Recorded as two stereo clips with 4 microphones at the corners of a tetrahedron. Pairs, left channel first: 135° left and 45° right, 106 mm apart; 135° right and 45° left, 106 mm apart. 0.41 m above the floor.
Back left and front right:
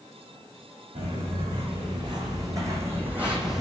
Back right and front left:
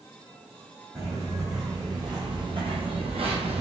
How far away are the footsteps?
About 1.7 m.